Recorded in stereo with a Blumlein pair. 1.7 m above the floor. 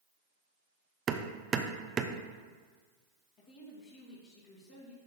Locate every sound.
1.1 s hammering: 20° right, 0.8 m
3.4 s a woman speaking: 45° left, 3 m